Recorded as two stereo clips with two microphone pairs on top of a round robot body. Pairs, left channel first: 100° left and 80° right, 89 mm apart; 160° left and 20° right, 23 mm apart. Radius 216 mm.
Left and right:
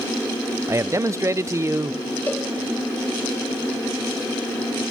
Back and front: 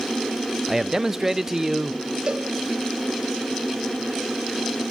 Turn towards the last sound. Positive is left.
turn(degrees=30)